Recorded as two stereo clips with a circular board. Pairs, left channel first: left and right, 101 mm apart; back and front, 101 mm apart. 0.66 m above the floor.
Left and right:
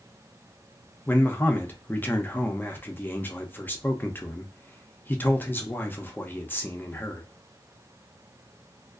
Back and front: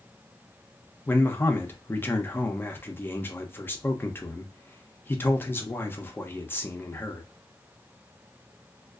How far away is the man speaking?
About 0.5 m.